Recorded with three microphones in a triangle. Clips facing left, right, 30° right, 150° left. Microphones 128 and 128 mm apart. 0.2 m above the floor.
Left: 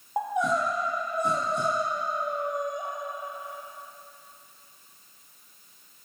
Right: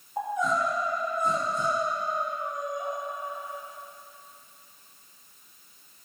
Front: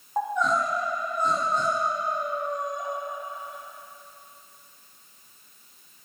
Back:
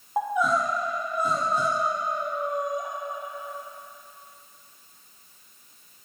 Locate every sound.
0.2 s crying: 70° left, 3.5 m